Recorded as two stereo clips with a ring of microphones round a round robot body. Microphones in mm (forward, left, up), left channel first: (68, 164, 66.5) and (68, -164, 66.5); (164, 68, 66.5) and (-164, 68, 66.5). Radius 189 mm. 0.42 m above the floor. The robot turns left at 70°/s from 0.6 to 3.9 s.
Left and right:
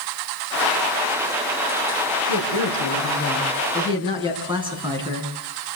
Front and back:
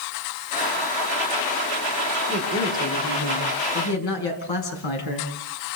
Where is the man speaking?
100° left, 5.5 m; by 5.3 s 15° right, 5.5 m.